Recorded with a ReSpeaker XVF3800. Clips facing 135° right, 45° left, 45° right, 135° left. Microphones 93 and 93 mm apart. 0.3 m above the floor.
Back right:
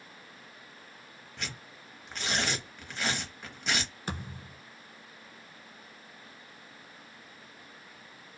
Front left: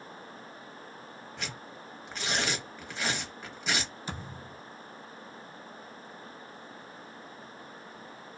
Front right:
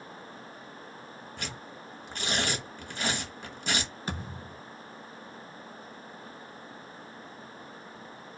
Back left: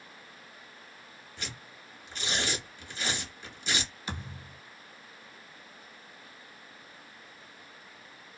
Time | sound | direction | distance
1.4 | tearing paper | 40° right | 0.7 m
4.1 | a thud | 95° right | 0.9 m